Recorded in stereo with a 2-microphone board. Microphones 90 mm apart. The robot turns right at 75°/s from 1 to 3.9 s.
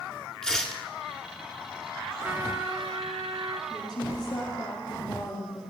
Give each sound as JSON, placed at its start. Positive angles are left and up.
{"t": 0.4, "sound": "tearing paper", "side_deg": 5, "distance_m": 1.1}
{"t": 2.2, "sound": "a trumpet", "azimuth_deg": -160, "distance_m": 0.8}
{"t": 3.7, "sound": "a woman speaking", "side_deg": 35, "distance_m": 4.0}